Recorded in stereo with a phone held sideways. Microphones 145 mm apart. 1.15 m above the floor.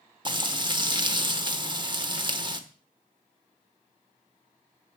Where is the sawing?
No sawing in this recording.